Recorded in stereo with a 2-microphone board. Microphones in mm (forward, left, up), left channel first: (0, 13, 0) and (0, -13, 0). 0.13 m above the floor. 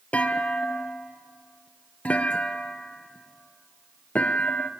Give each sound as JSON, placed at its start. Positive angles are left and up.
{"t": 0.1, "sound": "a clunk", "side_deg": 60, "distance_m": 0.8}